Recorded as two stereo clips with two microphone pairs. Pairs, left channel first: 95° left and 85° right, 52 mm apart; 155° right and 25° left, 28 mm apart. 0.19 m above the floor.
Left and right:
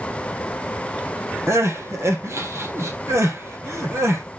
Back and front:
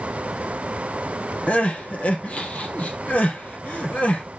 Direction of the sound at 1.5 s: 115° right.